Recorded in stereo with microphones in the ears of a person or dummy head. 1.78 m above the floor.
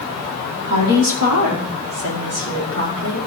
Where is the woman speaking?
65° right (ahead or behind), 4 m.